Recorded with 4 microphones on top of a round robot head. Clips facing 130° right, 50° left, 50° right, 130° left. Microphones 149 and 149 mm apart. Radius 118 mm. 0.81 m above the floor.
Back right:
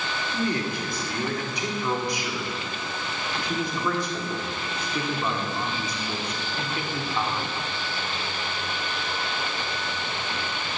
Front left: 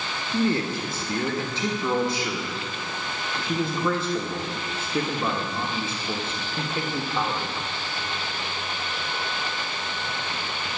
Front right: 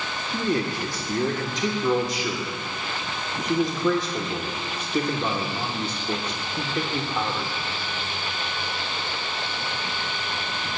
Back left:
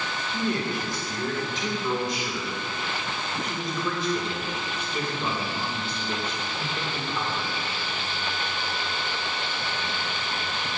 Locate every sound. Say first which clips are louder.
0.3 s a man speaking: front left 4 dB, front right 3 dB; 10° right, 1.4 m